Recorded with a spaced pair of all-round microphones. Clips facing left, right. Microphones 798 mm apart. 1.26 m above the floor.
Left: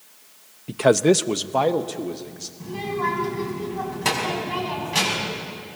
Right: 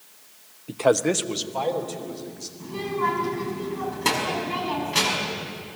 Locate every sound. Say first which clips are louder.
0.7 s a man speaking: left 4 dB; 40° left (ahead or behind), 0.5 m; by 2.5 s 70° left (ahead or behind), 1.8 m
2.6 s a child speaking: even; 25° left (ahead or behind), 5 m